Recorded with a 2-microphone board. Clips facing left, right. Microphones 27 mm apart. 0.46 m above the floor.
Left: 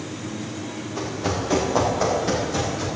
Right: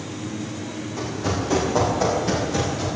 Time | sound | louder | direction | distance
1.0 | running footsteps | even | 20° left (ahead or behind) | 4.5 m